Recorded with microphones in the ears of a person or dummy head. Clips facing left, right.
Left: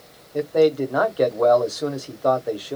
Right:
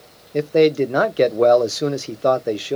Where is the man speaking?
35° right (ahead or behind), 0.5 m.